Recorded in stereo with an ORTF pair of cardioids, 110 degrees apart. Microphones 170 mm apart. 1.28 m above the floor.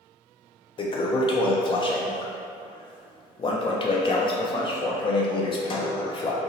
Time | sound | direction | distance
0.8 | a toilet flushing | 30° left | 0.7 m